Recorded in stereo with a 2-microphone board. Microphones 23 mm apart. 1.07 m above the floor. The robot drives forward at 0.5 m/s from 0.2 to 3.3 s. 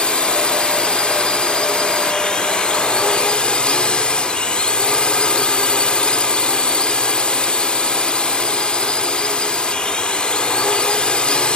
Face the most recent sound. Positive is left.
turn(degrees=50)  # may be behind; listen again after turning